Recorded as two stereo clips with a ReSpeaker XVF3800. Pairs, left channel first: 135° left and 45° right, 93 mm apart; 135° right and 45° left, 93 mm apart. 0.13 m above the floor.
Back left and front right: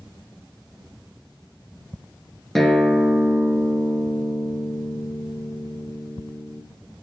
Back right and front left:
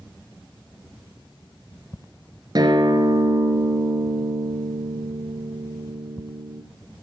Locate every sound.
2.5 s a guitar: 50° left, 1.5 m